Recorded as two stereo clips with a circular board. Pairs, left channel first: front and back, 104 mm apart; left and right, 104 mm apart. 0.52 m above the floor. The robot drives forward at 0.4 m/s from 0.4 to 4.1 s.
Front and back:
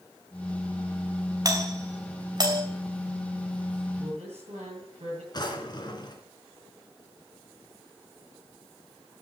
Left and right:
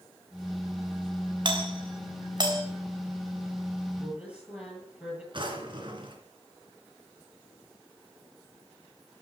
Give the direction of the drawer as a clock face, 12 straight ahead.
2 o'clock.